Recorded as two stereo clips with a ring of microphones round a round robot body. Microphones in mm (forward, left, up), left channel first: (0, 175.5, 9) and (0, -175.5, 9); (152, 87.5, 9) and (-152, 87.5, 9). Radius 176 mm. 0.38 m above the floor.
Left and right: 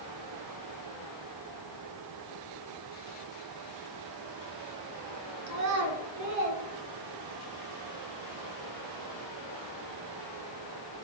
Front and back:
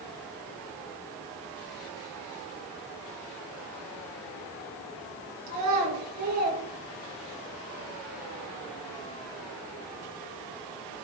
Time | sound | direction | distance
5.5 | a child speaking | 135° right | 3.5 m